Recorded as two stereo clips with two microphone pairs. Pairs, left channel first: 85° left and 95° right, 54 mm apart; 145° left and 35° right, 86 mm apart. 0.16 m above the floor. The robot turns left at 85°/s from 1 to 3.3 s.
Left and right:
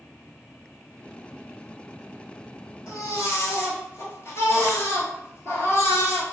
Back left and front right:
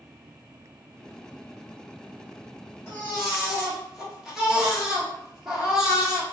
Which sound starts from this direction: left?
A baby crying, at 2.9 s.